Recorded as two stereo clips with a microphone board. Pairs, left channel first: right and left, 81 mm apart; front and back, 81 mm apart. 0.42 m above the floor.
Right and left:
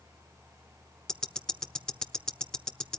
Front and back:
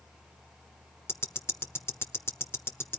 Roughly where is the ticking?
Ahead.